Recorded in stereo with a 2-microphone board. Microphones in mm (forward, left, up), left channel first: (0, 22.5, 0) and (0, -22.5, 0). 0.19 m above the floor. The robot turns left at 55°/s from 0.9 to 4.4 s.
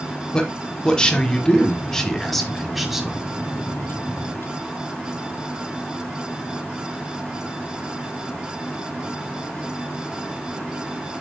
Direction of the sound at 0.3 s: 20° left (ahead or behind).